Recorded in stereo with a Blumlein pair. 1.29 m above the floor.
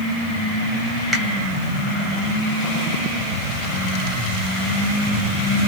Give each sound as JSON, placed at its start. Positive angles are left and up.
{"t": 1.1, "sound": "a finger snap", "azimuth_deg": 0, "distance_m": 1.1}